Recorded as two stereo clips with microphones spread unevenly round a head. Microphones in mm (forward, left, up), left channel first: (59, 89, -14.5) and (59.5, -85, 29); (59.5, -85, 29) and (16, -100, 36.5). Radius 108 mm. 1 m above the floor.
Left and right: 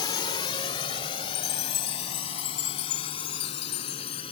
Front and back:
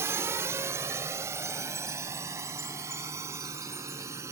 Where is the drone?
160° left; by 4.3 s 155° left.